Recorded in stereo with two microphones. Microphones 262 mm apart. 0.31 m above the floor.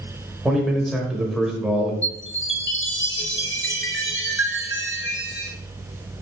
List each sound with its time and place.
0.5 s a man speaking: centre (ahead or behind), 0.9 m
2.0 s a chime: 50° left (ahead or behind), 0.7 m